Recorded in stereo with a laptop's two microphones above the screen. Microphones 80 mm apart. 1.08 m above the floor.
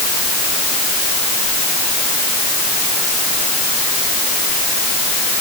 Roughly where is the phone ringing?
No phone ringing in this recording.